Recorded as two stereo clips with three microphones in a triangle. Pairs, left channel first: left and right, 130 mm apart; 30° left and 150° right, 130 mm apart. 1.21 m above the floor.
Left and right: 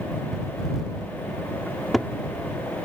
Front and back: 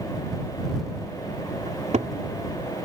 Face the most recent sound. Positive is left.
turn(degrees=180)